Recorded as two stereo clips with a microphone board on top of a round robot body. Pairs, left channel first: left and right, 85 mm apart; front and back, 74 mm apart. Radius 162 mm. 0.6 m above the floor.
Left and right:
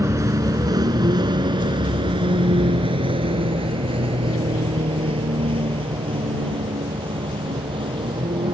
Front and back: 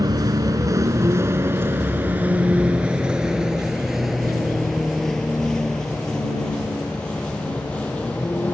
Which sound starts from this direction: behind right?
A vehicle, at 0.0 s.